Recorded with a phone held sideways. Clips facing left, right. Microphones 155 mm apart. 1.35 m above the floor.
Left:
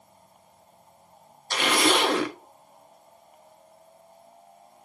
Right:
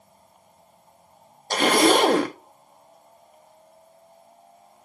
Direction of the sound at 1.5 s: 40° right (ahead or behind).